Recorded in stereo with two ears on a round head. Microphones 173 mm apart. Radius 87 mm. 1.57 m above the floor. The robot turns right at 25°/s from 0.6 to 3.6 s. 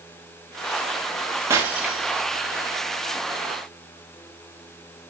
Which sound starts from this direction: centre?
Breaking glass, at 1.5 s.